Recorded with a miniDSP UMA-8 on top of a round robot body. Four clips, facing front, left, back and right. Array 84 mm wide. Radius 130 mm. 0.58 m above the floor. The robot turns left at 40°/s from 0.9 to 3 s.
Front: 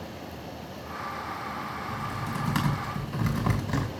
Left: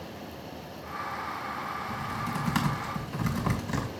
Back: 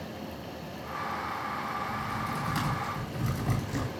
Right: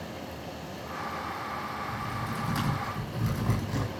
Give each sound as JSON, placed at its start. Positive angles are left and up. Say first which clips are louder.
{"t": 1.9, "sound": "typing on a keyboard", "louder": "left 1 dB, even", "azimuth_deg": 80, "distance_m": 5.5}